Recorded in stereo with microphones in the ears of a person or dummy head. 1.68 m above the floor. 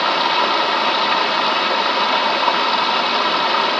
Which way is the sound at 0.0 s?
Centre (ahead or behind).